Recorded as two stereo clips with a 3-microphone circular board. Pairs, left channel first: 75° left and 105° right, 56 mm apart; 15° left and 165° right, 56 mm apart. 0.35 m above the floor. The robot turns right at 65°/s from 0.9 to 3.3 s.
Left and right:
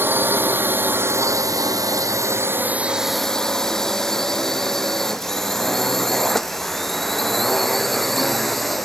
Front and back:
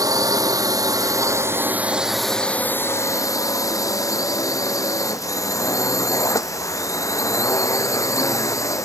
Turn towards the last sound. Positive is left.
turn(degrees=-15)